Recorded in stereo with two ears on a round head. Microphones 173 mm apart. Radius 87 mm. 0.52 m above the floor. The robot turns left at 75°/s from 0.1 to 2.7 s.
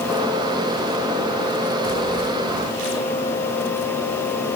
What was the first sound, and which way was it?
Only background noise.